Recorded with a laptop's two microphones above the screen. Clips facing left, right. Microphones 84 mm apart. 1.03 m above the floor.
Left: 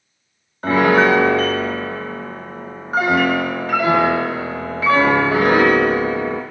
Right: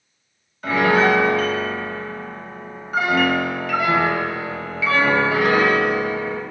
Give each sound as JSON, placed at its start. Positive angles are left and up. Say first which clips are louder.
{"t": 0.6, "sound": "a piano", "louder": "left 3 dB", "side_deg": 40, "distance_m": 0.6}